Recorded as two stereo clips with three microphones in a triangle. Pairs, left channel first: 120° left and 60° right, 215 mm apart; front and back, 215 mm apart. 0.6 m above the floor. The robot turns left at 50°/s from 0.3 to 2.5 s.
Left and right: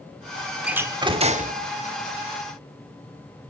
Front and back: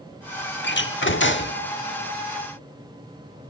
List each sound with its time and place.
0.6 s a door slam: 25° left, 1.2 m; by 1.6 s 20° right, 1.2 m